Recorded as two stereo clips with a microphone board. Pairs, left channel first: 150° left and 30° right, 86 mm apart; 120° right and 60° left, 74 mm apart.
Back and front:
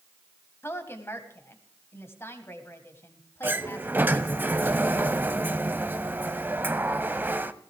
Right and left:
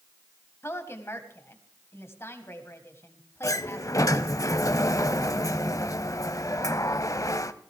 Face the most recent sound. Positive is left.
turn(degrees=-95)